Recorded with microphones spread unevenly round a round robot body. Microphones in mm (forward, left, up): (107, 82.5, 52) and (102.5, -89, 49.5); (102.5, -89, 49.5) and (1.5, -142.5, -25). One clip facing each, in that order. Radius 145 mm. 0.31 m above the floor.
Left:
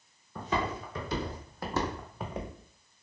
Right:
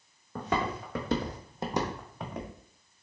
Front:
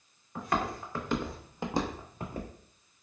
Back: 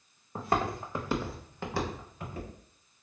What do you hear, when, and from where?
0.3 s footsteps: 85° right, 1.0 m; by 2.5 s 10° left, 1.0 m